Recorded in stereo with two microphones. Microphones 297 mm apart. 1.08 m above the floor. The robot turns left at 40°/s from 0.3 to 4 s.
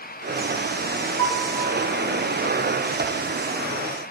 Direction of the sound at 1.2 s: 65° right (ahead or behind).